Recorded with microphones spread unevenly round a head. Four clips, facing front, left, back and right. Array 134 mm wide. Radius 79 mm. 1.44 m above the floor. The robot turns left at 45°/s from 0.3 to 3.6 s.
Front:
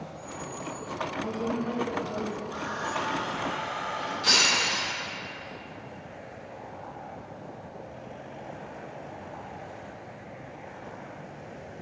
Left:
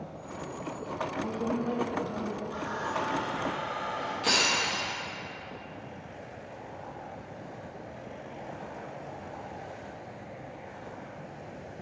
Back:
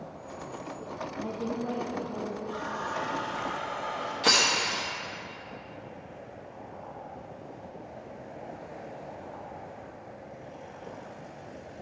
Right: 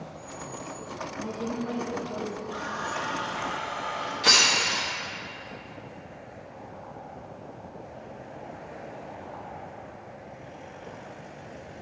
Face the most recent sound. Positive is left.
turn(degrees=-175)